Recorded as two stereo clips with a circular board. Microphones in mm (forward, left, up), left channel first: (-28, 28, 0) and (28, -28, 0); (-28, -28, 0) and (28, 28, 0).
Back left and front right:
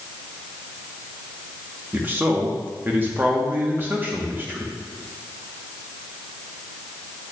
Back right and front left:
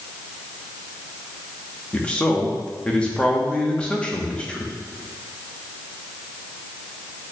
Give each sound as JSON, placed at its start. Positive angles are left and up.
{"t": 1.9, "sound": "a man speaking", "azimuth_deg": -75, "distance_m": 1.0}